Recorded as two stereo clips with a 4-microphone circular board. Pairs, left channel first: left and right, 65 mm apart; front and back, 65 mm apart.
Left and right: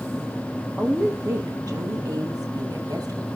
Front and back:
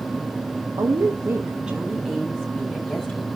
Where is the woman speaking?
165° right, 1.2 m; by 3.3 s 70° right, 3 m.